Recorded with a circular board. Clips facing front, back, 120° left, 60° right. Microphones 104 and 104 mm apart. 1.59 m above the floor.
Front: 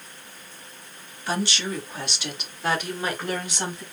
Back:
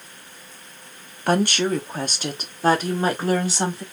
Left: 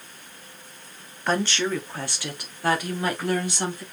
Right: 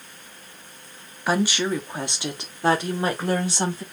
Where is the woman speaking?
145° right, 0.8 m; by 3.8 s 120° right, 2 m.